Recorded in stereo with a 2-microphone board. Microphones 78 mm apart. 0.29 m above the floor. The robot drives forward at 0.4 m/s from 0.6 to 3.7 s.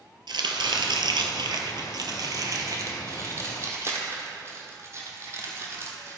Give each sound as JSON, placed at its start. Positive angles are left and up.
{"t": 0.3, "sound": "chopping", "side_deg": -85, "distance_m": 0.9}